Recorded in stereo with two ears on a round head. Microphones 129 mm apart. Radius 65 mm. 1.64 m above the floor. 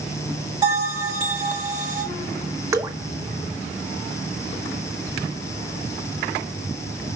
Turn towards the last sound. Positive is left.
turn(degrees=-20)  # may be behind; listen again after turning